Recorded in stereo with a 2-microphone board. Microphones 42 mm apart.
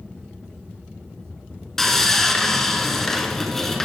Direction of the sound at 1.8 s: 10° left (ahead or behind).